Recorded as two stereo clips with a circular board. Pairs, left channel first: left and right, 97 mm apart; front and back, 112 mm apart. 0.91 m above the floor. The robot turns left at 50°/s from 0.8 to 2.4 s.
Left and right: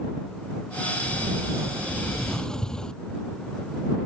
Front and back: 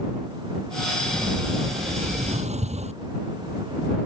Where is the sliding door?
120° right; by 3.0 s 170° left.